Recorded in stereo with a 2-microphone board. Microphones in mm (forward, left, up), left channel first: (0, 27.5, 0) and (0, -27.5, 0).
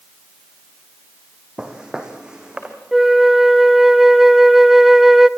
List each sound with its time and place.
1.6 s footsteps: 15° right (ahead or behind), 3 m
2.9 s a flute: 5° right (ahead or behind), 0.6 m